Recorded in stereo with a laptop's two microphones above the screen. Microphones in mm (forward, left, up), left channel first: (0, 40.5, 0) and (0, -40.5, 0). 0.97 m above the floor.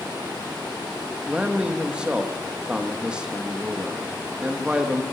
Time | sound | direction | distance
1.3 | a man speaking | 10° right (ahead or behind) | 1.3 m